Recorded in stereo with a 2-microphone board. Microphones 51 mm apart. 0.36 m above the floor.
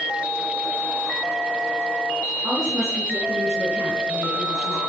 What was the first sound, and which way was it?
A woman speaking, 60° right (ahead or behind).